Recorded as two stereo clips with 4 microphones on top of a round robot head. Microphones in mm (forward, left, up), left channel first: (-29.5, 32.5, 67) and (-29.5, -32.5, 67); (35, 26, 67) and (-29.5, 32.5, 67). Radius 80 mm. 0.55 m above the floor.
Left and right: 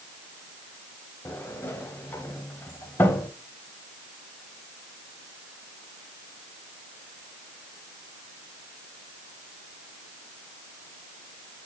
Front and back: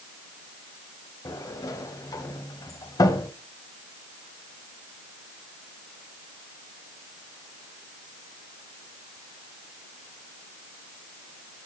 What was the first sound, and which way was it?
A sliding door, 30° left.